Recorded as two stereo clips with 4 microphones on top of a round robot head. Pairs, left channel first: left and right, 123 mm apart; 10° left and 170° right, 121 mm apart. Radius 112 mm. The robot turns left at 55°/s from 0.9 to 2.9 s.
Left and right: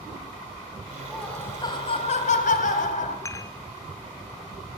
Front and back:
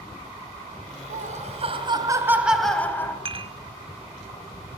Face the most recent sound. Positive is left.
turn(degrees=155)